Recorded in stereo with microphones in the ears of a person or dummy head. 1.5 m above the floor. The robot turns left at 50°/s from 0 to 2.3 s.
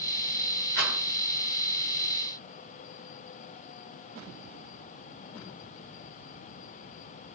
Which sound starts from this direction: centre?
A rattle, at 0.8 s.